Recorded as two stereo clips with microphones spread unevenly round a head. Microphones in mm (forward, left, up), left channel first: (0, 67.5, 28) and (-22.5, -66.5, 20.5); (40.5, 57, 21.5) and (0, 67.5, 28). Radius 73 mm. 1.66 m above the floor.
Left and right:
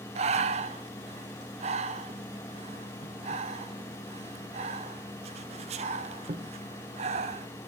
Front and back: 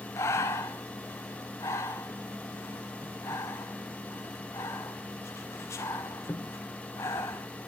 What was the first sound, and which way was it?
Breathing, 50° right.